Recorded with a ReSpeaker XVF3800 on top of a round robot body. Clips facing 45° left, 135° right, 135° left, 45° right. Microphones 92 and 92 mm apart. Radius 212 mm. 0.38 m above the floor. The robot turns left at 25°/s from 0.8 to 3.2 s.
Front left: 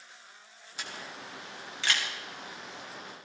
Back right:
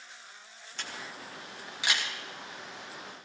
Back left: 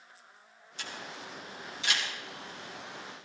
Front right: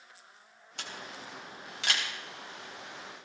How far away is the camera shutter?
About 4 m.